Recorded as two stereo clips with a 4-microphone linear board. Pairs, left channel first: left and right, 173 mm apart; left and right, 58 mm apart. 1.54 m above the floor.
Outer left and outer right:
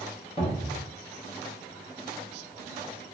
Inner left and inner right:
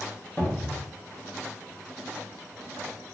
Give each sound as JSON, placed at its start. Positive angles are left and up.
{"t": 0.4, "sound": "a cupboard door", "side_deg": 35, "distance_m": 1.1}